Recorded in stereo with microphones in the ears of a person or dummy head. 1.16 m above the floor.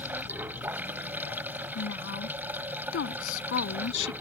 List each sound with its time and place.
0.0 s running water: 15° right (ahead or behind)
1.8 s a woman speaking: 85° left